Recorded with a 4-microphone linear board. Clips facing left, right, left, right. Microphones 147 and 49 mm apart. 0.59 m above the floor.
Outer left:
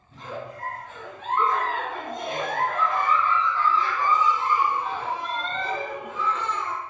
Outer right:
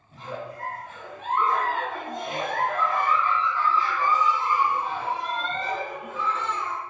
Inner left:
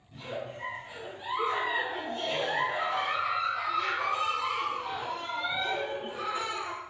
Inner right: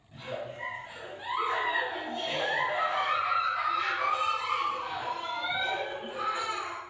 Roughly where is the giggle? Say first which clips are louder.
Even, even; centre.